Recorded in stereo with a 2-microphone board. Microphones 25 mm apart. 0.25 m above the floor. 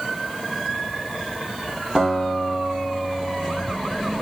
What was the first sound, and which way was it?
A guitar, 25° right (ahead or behind).